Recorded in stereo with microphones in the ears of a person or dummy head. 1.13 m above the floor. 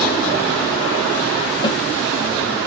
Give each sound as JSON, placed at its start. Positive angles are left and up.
{"t": 1.6, "sound": "a snare drum", "side_deg": 30, "distance_m": 0.8}